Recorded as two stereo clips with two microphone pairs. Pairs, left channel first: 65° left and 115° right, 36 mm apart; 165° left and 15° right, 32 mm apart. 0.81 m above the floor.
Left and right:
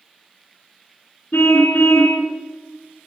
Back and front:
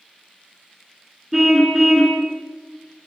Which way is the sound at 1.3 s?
65° left.